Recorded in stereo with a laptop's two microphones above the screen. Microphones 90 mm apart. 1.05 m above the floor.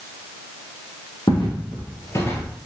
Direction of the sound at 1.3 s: 55° left (ahead or behind).